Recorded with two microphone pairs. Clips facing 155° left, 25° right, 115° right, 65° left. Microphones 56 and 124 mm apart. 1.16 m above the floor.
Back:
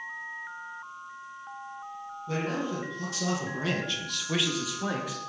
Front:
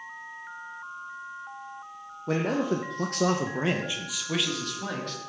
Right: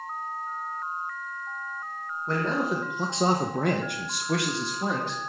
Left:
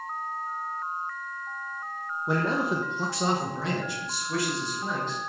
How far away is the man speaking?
About 1.3 m.